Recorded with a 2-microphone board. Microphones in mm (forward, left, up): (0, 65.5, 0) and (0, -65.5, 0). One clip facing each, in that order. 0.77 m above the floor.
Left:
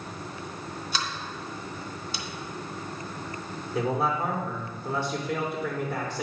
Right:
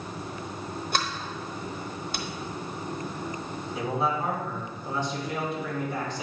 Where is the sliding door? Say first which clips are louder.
Right 4 dB; 55° right (ahead or behind), 0.9 m.